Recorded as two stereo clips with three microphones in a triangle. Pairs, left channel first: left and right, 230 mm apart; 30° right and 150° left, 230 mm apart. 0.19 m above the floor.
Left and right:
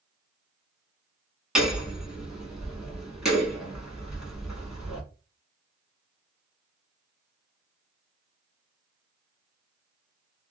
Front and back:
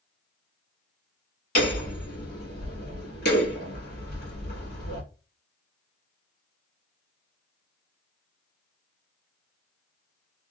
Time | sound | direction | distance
1.6 | hammering | 5° right | 1.5 m